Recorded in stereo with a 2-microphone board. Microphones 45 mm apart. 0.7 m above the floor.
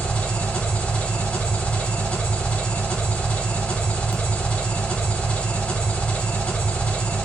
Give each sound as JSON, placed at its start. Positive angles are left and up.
{"t": 0.0, "sound": "an engine running", "side_deg": 30, "distance_m": 0.8}